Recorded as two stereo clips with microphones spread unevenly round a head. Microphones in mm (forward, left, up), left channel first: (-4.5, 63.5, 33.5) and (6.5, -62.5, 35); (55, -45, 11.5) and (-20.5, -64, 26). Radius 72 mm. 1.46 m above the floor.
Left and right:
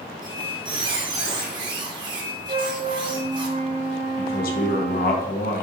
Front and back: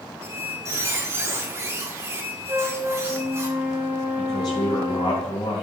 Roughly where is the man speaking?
Left.